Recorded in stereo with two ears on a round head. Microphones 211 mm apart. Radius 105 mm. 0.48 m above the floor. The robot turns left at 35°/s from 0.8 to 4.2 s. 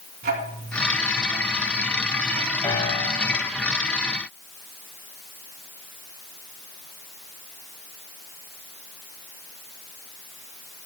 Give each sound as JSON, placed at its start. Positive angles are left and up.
{"t": 0.2, "sound": "ticking", "side_deg": -40, "distance_m": 3.0}
{"t": 2.6, "sound": "a piano", "side_deg": 15, "distance_m": 3.0}